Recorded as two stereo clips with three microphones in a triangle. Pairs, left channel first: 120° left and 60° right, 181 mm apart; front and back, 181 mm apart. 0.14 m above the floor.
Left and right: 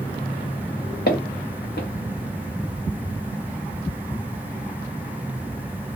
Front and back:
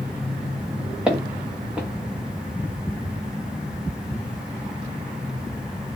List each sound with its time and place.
1.1 s footsteps: 95° left, 1.0 m